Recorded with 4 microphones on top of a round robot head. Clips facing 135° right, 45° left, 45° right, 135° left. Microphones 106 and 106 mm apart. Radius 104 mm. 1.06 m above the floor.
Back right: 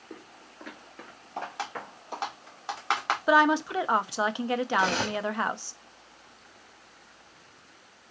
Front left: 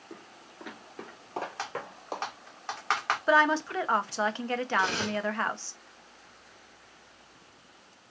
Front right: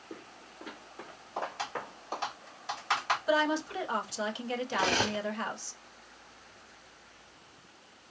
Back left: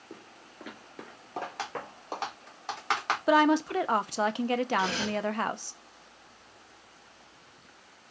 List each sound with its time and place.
0.1 s footsteps: 170° left, 1.0 m; by 2.3 s 90° left, 2 m
1.6 s typing on a keyboard: 155° left, 1.9 m
3.3 s a woman speaking: 150° left, 0.5 m
4.7 s cutlery clinking: 85° right, 0.7 m